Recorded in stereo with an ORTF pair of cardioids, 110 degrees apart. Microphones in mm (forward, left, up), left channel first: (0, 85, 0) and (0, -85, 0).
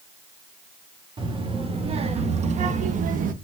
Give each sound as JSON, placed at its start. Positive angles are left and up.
{"t": 1.2, "sound": "a child speaking", "azimuth_deg": -30, "distance_m": 2.5}